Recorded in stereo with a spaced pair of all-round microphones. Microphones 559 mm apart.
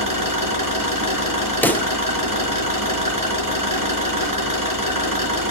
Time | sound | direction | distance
0.0 | an engine running | 35° right (ahead or behind) | 4.5 m
1.6 | a pop | 5° left (ahead or behind) | 1.1 m